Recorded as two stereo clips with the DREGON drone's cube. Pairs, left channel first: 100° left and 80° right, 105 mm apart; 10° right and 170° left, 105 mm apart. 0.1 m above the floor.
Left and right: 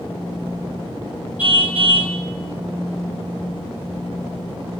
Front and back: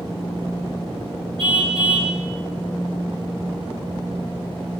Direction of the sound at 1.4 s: 155° right.